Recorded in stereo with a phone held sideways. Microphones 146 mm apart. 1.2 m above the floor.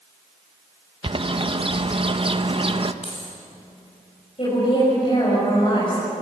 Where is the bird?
40° right (ahead or behind), 0.7 m.